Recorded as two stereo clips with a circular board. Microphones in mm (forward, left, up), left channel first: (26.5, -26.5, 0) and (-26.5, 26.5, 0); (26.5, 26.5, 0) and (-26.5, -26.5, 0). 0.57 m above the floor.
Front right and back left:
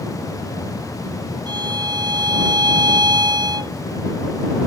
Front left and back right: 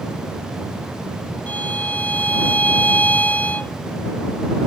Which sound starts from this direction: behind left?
A violin, at 1.5 s.